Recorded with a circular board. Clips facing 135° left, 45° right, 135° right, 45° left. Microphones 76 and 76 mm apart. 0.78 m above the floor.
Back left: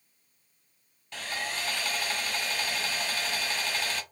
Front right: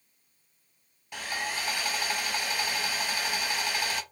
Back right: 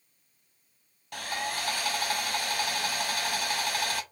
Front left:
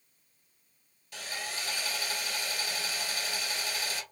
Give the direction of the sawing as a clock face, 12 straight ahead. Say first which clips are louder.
Front right 1 dB, back right 6 dB; 4 o'clock.